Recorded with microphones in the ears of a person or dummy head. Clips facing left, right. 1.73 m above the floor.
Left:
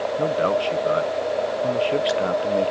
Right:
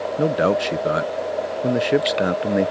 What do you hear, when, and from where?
0.2 s a man speaking: 25° right (ahead or behind)